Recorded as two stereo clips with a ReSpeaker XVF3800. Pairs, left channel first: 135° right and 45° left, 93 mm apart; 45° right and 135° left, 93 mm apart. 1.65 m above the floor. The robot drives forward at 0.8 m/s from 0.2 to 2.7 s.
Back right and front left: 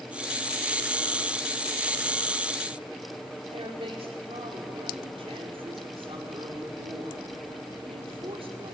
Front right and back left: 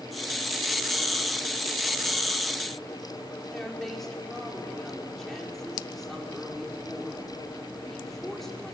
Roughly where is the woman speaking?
Ahead left.